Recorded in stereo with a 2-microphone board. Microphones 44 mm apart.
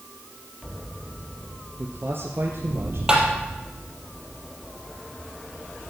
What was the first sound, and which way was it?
A man speaking, 55° right (ahead or behind).